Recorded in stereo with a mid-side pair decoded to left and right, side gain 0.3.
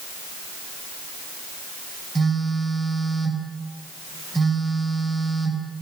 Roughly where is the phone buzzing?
Ahead right.